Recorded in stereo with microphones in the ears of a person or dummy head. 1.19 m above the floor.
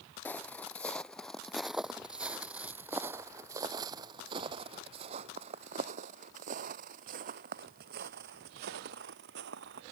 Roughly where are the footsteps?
Centre.